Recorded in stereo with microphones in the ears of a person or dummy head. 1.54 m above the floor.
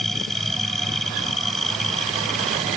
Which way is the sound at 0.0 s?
Centre (ahead or behind).